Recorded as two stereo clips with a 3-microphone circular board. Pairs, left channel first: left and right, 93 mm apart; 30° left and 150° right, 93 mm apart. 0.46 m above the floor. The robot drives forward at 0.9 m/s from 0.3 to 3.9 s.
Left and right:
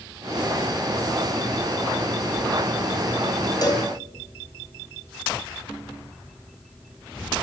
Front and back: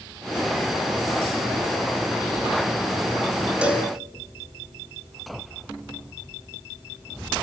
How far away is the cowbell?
About 3 m.